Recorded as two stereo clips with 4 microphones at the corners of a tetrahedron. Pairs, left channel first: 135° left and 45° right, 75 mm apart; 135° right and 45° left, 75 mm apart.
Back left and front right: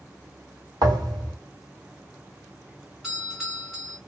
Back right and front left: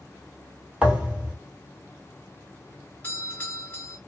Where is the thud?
30° right, 1.5 m.